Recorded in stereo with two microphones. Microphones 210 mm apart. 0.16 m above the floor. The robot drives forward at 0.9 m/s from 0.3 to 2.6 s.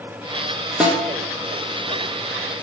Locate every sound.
0.8 s a snare drum: 5° right (ahead or behind), 2.0 m